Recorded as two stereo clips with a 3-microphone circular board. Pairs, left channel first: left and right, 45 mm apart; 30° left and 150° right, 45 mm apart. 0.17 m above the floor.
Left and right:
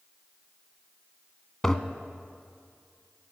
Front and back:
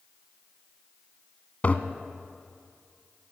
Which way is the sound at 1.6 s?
20° left.